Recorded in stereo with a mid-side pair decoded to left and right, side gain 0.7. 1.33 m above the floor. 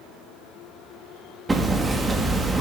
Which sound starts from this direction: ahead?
Hammering, at 1.5 s.